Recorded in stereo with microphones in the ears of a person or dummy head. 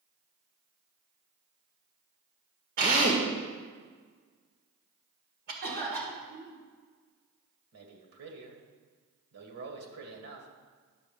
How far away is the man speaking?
About 2 m.